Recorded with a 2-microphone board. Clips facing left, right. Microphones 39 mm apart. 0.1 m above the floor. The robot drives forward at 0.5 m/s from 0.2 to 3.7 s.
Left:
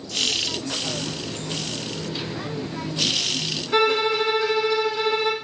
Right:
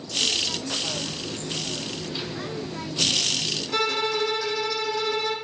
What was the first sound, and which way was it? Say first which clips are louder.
A running tap: left 2 dB; 65° left (ahead or behind).